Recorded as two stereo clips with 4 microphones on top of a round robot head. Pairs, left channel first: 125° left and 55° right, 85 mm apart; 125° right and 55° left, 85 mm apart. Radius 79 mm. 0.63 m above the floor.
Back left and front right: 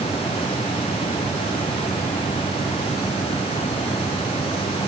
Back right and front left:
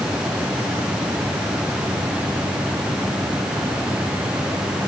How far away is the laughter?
No laughter in this recording.